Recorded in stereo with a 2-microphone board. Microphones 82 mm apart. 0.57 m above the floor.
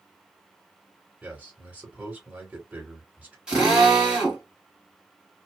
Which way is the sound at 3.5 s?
10° right (ahead or behind).